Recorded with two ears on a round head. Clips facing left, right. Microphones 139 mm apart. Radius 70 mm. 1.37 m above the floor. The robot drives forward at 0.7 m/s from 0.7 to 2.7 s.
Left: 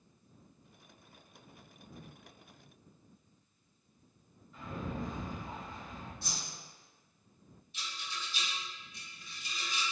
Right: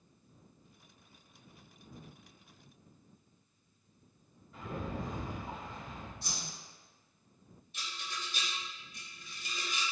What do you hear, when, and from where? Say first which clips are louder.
4.5 s a rattle: even; 50° right (ahead or behind), 1.9 m
6.2 s a whoosh: even; 50° left (ahead or behind), 2.0 m
7.7 s a rattle: right 1 dB; 40° right (ahead or behind), 0.9 m